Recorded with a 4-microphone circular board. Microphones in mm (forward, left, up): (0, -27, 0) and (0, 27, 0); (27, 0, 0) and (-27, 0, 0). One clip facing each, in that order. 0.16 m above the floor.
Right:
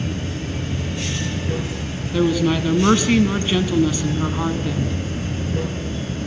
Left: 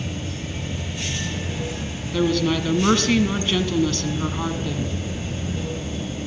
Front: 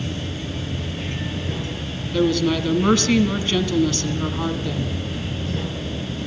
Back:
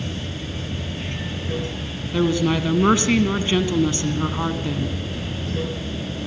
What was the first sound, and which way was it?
Running water, 90° right.